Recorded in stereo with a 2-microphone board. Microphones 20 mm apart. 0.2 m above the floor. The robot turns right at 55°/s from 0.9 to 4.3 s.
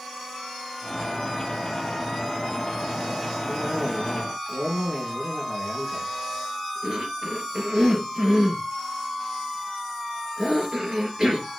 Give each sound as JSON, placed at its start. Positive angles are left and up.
{"t": 3.5, "sound": "a cough", "side_deg": -70, "distance_m": 4.0}